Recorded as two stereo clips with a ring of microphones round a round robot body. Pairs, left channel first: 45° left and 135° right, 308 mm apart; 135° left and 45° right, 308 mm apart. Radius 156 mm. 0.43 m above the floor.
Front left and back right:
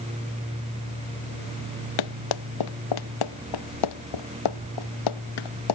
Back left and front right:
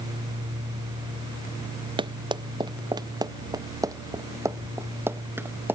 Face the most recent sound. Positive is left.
turn(degrees=40)